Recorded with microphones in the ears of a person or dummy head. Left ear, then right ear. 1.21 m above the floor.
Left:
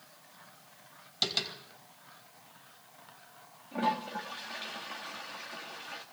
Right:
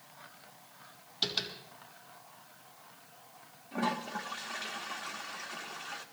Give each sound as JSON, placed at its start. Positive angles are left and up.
{"t": 1.2, "sound": "tapping", "side_deg": 85, "distance_m": 4.5}
{"t": 3.7, "sound": "a toilet flushing", "side_deg": 0, "distance_m": 1.4}